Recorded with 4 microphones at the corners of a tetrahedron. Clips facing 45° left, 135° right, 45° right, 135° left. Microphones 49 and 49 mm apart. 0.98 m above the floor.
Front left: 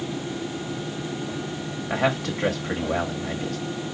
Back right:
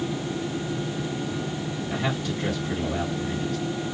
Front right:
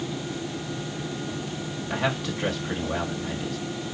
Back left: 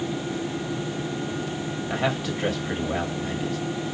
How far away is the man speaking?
About 1.3 m.